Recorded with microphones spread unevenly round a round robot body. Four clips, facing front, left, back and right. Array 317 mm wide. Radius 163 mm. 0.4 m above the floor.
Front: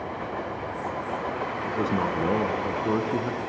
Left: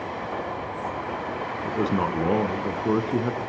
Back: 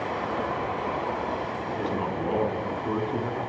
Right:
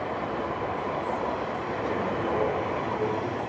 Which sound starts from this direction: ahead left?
A man speaking, at 1.6 s.